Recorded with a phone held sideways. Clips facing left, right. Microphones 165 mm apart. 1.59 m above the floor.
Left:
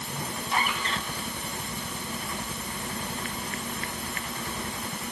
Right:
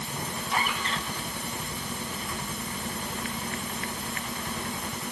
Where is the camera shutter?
I don't hear a camera shutter.